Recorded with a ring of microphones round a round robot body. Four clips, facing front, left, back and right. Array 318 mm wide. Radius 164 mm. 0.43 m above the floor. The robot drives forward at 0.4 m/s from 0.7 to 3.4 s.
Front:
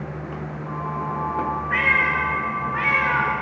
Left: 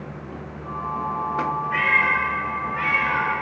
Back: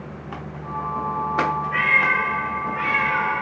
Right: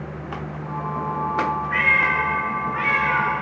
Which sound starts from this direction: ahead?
A cat meowing, at 1.7 s.